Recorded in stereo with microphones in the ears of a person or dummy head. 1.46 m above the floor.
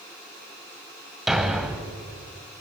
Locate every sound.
1.3 s a thud: centre (ahead or behind), 1.7 m